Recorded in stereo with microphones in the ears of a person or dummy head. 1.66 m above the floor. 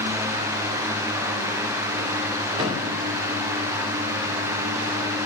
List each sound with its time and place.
2.6 s a thud: 35° right (ahead or behind), 2 m